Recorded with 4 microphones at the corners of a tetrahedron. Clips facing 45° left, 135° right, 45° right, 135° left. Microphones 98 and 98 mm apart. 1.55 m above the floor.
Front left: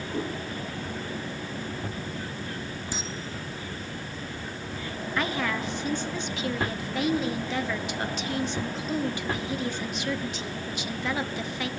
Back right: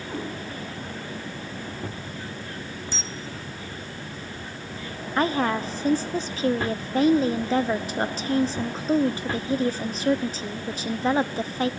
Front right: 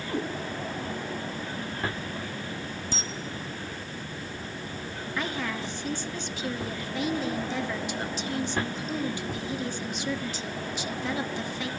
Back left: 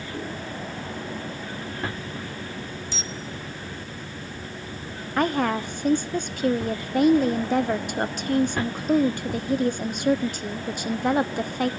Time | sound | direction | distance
0.1 | a cat meowing | 65° right | 8 m
2.9 | a camera shutter | 25° right | 1.0 m
5.2 | a woman speaking | 170° left | 0.8 m